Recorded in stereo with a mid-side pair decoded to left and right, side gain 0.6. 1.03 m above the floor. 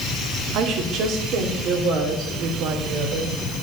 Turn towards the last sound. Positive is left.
turn(degrees=-70)